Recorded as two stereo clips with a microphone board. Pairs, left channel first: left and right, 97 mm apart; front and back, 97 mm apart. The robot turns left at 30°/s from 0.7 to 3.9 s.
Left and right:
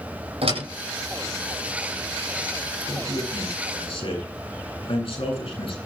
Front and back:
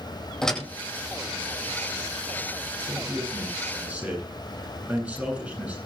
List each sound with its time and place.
0.4 s a door slam: 85° right, 9.5 m
2.9 s a man speaking: 135° left, 9.5 m; by 5.8 s 105° left, 9.5 m